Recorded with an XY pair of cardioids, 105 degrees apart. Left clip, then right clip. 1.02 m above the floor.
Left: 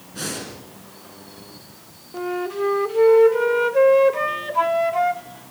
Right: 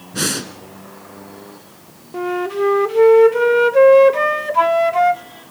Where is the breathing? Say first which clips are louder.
Right 8 dB; 65° right, 2.5 m.